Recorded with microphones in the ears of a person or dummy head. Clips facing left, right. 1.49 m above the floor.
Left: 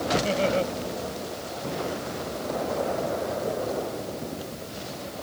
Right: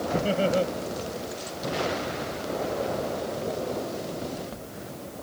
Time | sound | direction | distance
0.1 | laughter | 20° right (ahead or behind) | ?